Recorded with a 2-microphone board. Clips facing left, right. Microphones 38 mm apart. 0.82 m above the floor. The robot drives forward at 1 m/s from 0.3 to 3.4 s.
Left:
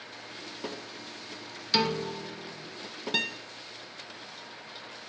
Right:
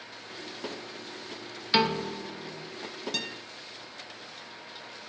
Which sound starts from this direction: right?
A piano, at 1.7 s.